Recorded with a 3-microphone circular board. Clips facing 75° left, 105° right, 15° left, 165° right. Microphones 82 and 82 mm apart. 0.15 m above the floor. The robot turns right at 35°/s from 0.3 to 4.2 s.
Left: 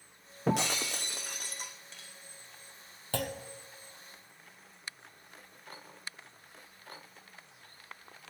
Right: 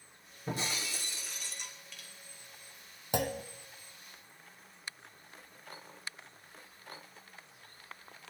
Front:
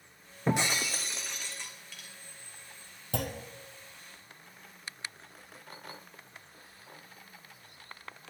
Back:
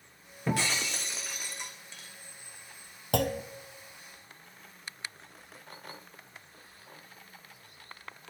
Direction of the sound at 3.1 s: Straight behind.